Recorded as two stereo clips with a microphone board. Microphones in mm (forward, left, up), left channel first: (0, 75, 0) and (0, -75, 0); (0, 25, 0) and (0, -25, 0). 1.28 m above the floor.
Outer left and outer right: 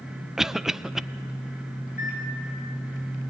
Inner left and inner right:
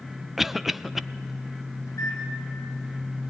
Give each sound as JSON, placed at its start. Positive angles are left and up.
{"t": 0.4, "sound": "a cough", "side_deg": -5, "distance_m": 0.5}
{"t": 1.9, "sound": "a microwave", "side_deg": 85, "distance_m": 6.0}